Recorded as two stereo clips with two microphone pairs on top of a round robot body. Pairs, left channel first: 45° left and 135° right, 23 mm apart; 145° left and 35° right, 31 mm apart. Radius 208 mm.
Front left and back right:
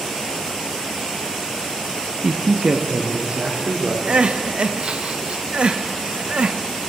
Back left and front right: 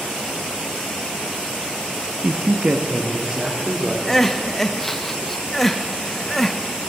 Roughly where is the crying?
Behind right.